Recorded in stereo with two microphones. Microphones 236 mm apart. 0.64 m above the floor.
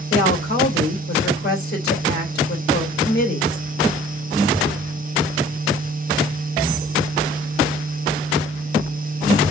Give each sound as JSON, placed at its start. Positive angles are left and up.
{"t": 0.1, "sound": "a woman speaking", "side_deg": 45, "distance_m": 3.0}